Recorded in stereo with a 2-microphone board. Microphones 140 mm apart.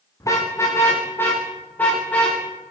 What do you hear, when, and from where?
0.2 s a car horn: 20° left (ahead or behind), 6.5 m; by 2.4 s 10° left (ahead or behind), 9.5 m